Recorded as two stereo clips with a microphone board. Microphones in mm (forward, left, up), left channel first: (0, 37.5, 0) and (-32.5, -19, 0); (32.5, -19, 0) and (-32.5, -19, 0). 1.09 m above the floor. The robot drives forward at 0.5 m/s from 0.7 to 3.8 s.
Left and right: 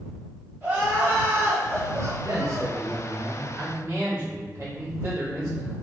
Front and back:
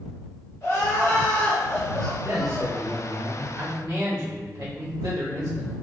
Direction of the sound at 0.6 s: 50° right.